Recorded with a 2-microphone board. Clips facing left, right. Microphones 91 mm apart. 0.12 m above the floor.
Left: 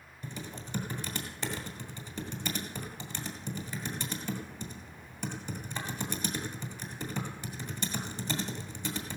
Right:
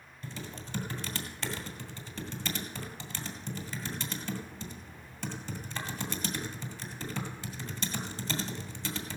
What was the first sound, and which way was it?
Typing on a keyboard, 15° left (ahead or behind).